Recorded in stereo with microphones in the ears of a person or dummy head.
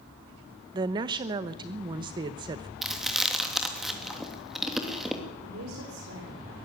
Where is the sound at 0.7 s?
25° right (ahead or behind), 1.0 m.